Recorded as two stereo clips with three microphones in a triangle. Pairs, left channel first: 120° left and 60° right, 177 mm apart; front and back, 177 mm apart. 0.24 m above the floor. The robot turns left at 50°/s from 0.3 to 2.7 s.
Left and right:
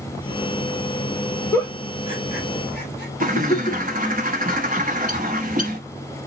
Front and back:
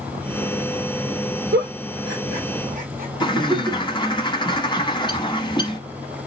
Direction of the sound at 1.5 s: 165° right.